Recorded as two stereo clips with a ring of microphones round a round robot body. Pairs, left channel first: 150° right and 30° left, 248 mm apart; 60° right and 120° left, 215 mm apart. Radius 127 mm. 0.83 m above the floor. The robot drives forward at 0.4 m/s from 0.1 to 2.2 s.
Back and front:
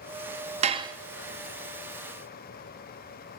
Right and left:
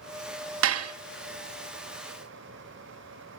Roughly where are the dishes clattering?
Left.